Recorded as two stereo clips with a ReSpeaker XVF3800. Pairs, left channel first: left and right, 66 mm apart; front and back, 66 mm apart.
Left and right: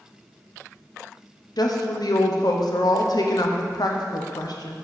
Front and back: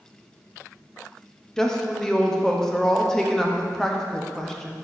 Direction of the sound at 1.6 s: 80° left.